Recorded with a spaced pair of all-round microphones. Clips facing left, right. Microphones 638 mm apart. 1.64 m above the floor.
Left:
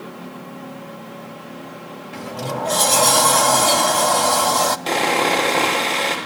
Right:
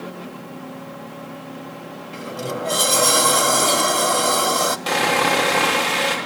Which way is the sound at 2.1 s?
25° left (ahead or behind).